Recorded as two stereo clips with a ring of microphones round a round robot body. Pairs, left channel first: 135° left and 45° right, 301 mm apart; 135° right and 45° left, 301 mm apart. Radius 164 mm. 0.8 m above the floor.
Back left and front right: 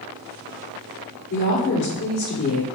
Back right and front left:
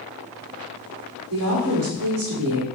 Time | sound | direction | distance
1.3 | a woman speaking | 80° left | 1.7 m